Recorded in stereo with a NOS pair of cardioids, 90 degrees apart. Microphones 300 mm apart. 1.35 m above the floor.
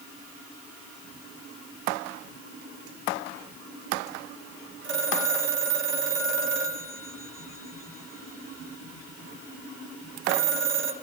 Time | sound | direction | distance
4.8 | a phone ringing | 40° right | 3 m